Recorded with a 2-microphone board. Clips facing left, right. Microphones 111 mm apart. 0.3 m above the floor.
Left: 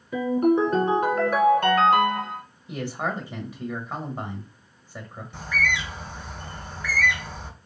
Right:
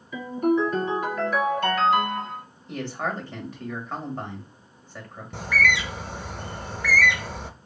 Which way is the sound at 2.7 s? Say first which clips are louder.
Left 1 dB; 10° left (ahead or behind).